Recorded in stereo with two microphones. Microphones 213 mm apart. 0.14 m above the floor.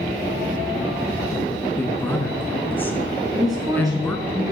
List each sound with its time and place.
1.8 s a woman speaking: 10° left (ahead or behind), 1.3 m
3.4 s a woman speaking: 15° right (ahead or behind), 1.3 m